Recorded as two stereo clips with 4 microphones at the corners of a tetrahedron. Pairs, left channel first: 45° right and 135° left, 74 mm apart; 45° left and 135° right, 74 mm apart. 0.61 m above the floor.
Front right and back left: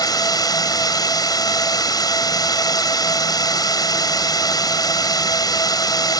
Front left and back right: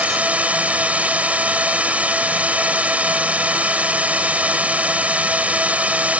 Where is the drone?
65° right.